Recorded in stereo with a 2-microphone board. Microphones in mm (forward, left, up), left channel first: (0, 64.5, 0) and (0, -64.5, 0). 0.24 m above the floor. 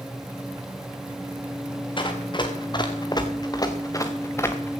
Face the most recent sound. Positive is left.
turn(degrees=15)  # may be behind; listen again after turning